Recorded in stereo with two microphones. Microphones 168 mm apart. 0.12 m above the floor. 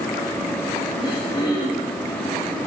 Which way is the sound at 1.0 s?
25° left (ahead or behind).